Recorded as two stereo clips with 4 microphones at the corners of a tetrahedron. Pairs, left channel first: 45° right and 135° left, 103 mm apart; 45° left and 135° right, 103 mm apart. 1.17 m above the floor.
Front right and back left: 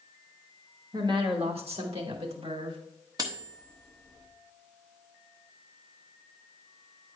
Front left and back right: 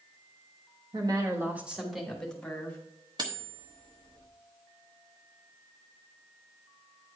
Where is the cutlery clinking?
175° right, 1.1 m.